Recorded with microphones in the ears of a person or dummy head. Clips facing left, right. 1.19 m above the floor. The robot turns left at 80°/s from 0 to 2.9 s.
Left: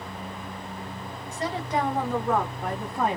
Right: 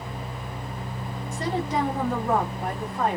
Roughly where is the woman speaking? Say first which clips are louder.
Right 2 dB; ahead right.